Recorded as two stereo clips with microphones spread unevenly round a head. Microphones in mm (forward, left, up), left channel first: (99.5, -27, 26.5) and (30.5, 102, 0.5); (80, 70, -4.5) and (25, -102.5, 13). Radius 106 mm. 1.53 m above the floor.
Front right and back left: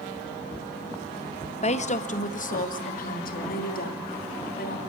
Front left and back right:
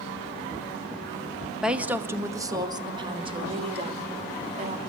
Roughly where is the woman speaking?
Ahead right.